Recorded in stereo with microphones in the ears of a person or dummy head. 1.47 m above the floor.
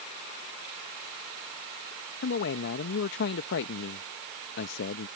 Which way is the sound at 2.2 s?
60° left (ahead or behind).